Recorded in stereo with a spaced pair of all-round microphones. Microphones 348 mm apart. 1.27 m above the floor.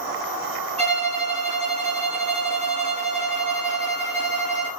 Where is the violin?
20° right (ahead or behind), 0.9 m.